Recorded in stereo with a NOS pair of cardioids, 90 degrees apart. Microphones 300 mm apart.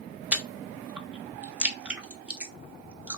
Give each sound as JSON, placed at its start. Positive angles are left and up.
{"t": 0.3, "sound": "chewing", "azimuth_deg": -5, "distance_m": 0.6}